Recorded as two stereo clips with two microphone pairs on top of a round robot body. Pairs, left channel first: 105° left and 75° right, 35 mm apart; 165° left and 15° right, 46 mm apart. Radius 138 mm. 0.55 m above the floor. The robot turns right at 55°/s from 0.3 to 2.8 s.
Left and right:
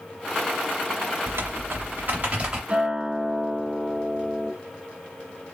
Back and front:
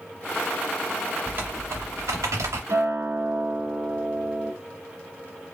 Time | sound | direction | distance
1.3 | typing on a keyboard | 70° right | 0.5 m
2.7 | a guitar | 30° right | 1.1 m